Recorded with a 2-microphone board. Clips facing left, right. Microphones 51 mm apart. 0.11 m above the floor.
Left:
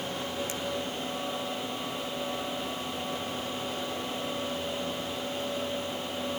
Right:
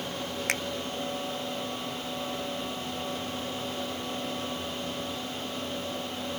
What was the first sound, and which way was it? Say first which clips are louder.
A finger snap: right 5 dB; 65° right (ahead or behind).